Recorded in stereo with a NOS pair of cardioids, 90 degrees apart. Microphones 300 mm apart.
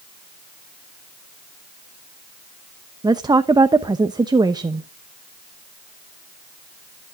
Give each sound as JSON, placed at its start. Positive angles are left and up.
{"t": 3.0, "sound": "a woman speaking", "azimuth_deg": -15, "distance_m": 0.9}